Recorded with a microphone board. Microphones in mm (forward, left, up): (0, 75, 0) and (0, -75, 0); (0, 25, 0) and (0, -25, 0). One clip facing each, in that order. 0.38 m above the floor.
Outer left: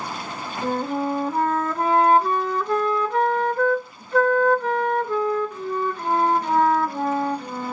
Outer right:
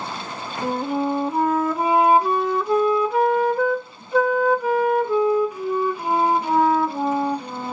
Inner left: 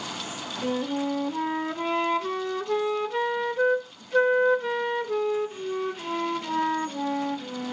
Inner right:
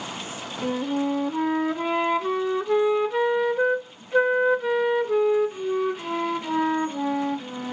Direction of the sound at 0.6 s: 10° right (ahead or behind).